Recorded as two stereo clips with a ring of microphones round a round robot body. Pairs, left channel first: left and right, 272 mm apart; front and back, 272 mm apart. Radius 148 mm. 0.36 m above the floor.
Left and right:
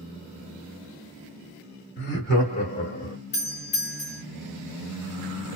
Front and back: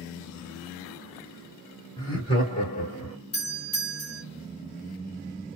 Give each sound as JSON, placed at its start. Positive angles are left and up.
{"t": 2.0, "sound": "laughter", "azimuth_deg": 70, "distance_m": 1.6}
{"t": 3.3, "sound": "a doorbell", "azimuth_deg": 50, "distance_m": 2.0}